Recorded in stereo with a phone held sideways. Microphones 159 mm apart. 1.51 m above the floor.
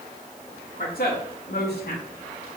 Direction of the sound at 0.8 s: 65° left (ahead or behind).